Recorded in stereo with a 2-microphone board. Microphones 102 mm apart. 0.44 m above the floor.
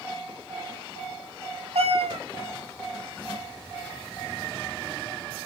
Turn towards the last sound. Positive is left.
turn(degrees=-85)